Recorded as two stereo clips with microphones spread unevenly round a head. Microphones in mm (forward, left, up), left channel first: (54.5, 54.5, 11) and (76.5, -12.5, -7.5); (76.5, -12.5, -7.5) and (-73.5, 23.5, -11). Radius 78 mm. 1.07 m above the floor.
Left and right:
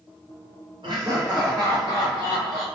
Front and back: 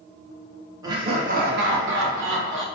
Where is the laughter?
125° right, 0.7 m; by 2.6 s 155° left, 1.2 m.